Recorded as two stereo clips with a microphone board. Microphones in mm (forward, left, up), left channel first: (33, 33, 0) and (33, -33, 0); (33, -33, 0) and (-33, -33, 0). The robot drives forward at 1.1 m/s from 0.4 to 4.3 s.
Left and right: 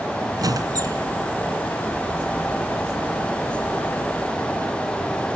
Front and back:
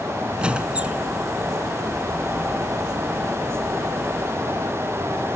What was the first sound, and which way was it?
A squeak, 105° right.